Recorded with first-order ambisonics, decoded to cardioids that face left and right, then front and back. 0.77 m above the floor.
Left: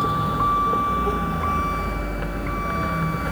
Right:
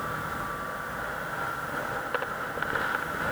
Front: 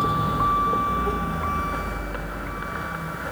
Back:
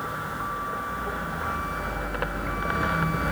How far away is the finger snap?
I don't hear a finger snap.